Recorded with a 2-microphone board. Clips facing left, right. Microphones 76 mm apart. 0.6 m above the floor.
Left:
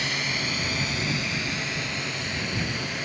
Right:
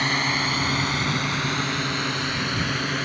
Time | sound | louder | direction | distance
0.0 | a drone | right 6 dB | 50° right (ahead or behind) | ?